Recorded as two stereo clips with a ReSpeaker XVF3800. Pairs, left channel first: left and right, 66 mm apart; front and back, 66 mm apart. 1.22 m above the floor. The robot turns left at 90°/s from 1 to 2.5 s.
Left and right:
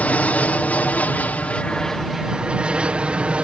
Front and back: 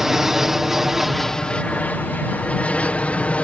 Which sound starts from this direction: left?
An aircraft, at 0.0 s.